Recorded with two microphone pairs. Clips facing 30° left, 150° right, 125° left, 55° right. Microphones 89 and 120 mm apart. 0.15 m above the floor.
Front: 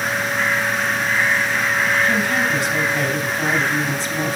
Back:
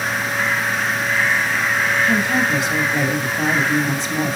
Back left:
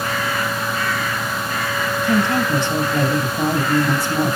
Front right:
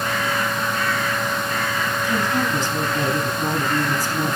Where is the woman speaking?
145° left, 3 m.